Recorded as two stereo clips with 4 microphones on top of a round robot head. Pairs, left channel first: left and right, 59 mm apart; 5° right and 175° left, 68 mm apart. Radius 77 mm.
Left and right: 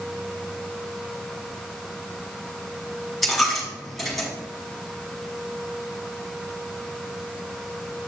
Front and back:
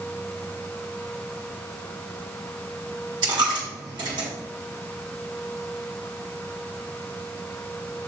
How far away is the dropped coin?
About 1.1 m.